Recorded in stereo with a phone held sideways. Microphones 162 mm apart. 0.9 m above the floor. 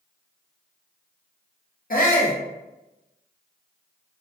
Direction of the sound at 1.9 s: 60° left (ahead or behind).